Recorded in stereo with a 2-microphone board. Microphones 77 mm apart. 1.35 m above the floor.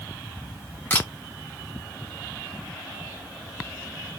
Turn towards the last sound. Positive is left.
turn(degrees=30)  # may be behind; listen again after turning